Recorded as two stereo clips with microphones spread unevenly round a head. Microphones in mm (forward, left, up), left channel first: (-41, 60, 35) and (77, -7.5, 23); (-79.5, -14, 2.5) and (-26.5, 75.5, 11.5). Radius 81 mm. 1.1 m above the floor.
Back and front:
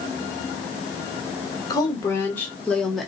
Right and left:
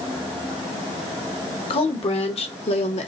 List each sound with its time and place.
1.7 s a woman speaking: 140° right, 1.8 m; by 3.1 s 115° right, 1.6 m